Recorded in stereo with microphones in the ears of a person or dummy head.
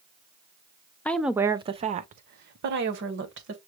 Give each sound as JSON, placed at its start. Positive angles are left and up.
{"t": 1.1, "sound": "a woman speaking", "side_deg": 5, "distance_m": 0.5}